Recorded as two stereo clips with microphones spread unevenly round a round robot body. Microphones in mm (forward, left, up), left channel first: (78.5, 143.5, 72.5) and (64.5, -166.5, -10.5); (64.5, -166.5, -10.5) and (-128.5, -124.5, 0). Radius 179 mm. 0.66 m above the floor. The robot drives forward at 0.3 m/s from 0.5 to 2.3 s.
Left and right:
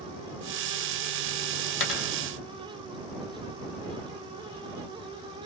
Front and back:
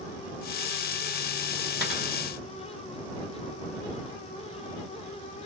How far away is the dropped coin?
About 1.1 m.